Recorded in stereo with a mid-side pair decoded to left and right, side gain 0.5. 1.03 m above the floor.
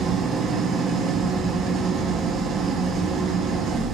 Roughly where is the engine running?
Ahead right.